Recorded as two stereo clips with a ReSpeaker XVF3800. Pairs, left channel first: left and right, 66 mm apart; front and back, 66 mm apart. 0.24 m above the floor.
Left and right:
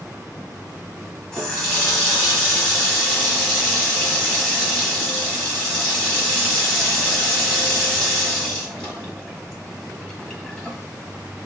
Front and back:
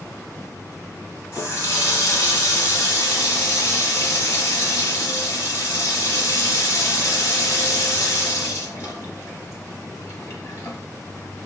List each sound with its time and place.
1.3 s a running tap: 10° left, 1.0 m